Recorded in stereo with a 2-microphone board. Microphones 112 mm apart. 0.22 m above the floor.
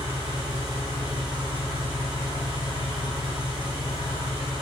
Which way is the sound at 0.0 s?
45° right (ahead or behind).